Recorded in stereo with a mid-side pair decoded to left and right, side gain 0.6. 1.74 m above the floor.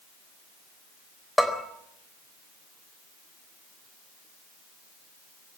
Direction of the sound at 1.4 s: Straight ahead.